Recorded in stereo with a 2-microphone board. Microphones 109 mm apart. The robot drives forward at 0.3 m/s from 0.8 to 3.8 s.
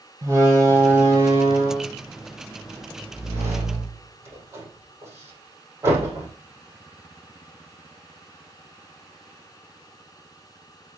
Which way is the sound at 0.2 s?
30° right (ahead or behind).